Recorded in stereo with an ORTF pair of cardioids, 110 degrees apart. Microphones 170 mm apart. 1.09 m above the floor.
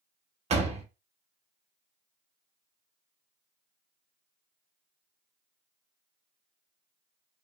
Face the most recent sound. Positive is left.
turn(degrees=-40)